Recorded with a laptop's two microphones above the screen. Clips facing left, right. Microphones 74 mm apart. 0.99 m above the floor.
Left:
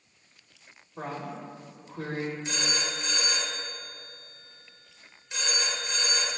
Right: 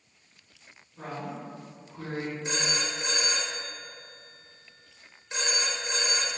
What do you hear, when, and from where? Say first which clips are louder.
1.0 s a woman speaking: left 1 dB; 70° left (ahead or behind), 3 m
2.5 s a phone ringing: right 1 dB; 30° right (ahead or behind), 2.5 m